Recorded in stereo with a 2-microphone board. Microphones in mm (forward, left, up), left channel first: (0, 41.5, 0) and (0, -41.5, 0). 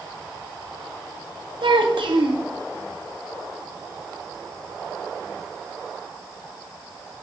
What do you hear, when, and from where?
1.6 s a child speaking: 75° right (ahead or behind), 1.1 m